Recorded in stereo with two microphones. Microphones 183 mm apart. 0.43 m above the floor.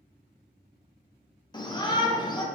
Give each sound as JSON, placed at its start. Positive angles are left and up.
{"t": 1.5, "sound": "a shout", "side_deg": 25, "distance_m": 0.7}